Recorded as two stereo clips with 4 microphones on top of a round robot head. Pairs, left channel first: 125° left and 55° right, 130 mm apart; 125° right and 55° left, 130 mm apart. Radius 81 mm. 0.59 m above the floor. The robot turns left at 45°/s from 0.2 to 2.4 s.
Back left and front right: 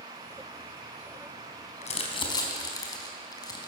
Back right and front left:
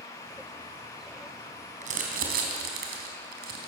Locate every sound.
1.8 s crumpling: 90° left, 4 m; by 3.7 s 65° left, 4 m